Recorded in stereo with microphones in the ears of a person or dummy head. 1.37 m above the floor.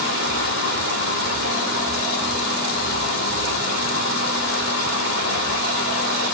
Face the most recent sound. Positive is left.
turn(degrees=55)  # may be behind; listen again after turning